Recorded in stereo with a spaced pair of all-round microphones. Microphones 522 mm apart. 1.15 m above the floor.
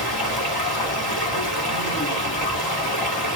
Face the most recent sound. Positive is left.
turn(degrees=45)  # may be behind; listen again after turning